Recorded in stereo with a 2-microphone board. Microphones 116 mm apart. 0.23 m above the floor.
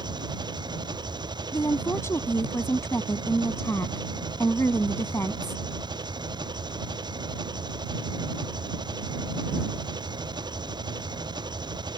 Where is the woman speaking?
25° left (ahead or behind).